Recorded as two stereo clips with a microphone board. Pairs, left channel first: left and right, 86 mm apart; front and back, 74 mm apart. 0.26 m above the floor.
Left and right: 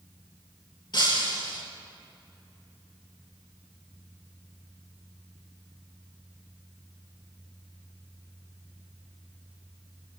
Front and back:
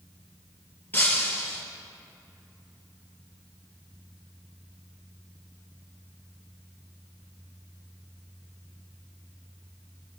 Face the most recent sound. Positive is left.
turn(degrees=60)